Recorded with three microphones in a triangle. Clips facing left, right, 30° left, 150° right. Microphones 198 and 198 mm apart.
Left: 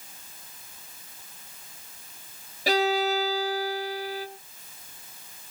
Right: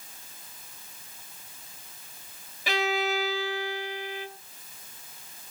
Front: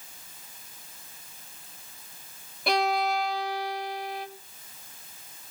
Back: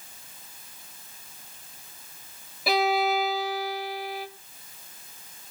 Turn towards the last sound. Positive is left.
turn(degrees=125)